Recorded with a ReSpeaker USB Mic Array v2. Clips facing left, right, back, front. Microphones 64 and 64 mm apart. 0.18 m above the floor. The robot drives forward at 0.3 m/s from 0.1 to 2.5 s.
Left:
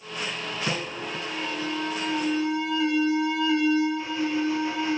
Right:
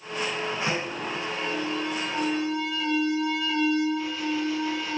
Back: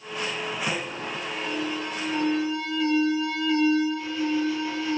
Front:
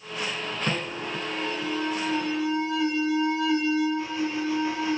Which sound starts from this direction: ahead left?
An alarm, at 0.7 s.